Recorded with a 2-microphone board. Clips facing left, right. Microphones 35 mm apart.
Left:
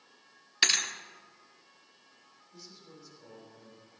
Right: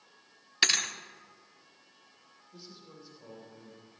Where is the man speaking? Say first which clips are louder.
Right 2 dB; 15° right (ahead or behind), 4 m.